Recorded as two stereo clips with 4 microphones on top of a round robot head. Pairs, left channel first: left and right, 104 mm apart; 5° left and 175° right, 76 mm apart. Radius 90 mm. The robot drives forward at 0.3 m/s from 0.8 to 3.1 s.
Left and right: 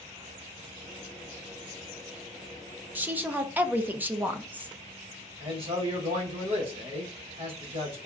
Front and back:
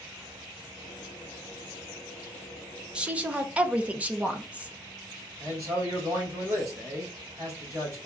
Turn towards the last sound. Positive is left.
turn(degrees=-120)